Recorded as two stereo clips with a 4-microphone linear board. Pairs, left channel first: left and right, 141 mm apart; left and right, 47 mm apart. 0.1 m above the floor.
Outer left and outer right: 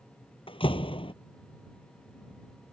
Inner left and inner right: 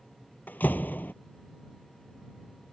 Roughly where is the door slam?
Left.